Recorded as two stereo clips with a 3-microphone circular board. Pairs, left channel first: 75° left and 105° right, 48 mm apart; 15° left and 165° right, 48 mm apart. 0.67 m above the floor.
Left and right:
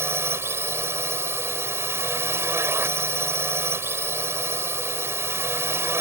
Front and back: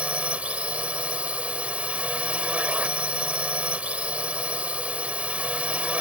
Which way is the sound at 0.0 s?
105° right.